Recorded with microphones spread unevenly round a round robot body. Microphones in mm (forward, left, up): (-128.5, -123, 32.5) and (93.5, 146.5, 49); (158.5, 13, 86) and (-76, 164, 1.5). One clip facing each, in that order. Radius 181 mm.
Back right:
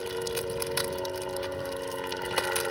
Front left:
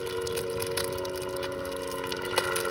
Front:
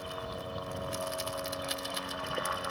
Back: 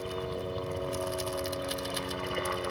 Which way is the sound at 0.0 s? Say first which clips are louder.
Front left 1 dB, back 7 dB; 130° left.